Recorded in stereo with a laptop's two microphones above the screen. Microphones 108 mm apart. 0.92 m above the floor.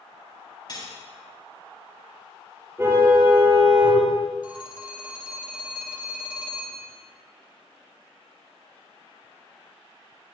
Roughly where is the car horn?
Right.